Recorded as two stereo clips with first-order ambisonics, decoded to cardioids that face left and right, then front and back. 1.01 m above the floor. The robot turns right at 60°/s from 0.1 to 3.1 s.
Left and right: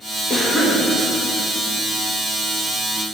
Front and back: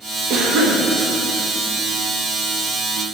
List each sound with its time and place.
0.3 s a cough: 155° left, 1.4 m; by 0.8 s 175° right, 1.4 m